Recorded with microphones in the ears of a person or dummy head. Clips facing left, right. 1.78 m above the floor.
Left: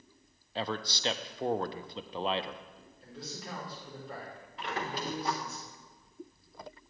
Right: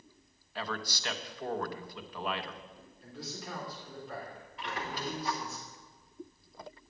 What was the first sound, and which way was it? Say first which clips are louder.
A man speaking: left 3 dB; 25° left (ahead or behind).